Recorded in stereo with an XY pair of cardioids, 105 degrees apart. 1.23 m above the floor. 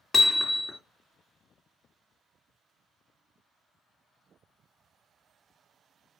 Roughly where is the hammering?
Ahead left.